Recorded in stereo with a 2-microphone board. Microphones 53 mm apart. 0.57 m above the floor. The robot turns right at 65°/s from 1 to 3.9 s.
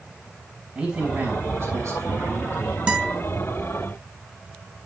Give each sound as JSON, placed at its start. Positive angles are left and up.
{"t": 0.8, "sound": "a man speaking", "azimuth_deg": -140, "distance_m": 3.5}
{"t": 2.9, "sound": "a guitar", "side_deg": -20, "distance_m": 3.0}